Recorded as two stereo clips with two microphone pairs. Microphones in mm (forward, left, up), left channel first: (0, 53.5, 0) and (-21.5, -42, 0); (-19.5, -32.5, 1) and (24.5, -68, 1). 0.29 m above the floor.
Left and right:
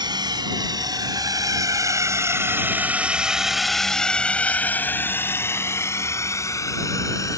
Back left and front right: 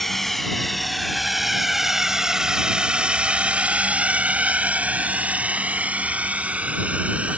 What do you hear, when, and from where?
0.0 s a drone: 135° right; by 7.4 s 25° left